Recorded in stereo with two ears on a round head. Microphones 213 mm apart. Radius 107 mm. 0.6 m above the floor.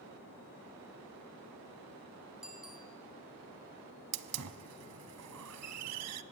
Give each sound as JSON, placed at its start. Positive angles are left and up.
{"t": 2.4, "sound": "a bicycle bell", "side_deg": -5, "distance_m": 5.0}
{"t": 4.1, "sound": "a hiss", "side_deg": -75, "distance_m": 1.3}